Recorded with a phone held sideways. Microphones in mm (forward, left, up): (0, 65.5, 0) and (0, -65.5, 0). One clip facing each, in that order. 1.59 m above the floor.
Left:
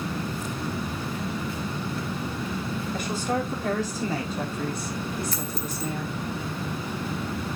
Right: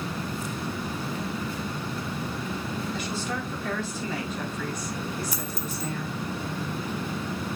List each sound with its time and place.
2.9 s a woman speaking: 50° left (ahead or behind), 3.5 m; by 6.2 s 15° left (ahead or behind), 4 m
5.3 s a dropped coin: 15° right (ahead or behind), 1.5 m